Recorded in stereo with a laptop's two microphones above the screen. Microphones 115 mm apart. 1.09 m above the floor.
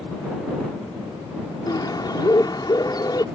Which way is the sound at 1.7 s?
40° left (ahead or behind).